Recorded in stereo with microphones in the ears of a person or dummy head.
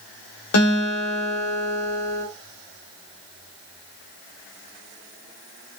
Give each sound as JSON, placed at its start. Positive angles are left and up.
{"t": 0.5, "sound": "a guitar", "side_deg": 85, "distance_m": 0.9}